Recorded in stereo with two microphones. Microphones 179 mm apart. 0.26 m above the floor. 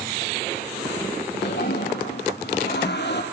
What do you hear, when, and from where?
1.4 s a toilet flushing: 70° left (ahead or behind), 4 m